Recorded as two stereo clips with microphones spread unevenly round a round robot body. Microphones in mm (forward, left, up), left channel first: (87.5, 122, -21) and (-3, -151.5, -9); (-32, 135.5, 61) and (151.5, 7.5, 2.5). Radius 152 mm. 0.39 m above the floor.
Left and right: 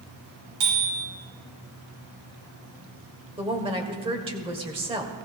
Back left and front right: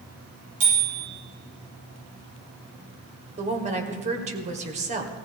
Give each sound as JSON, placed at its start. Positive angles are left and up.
{"t": 0.6, "sound": "a bicycle bell", "azimuth_deg": -85, "distance_m": 8.0}
{"t": 3.4, "sound": "a woman speaking", "azimuth_deg": -40, "distance_m": 1.8}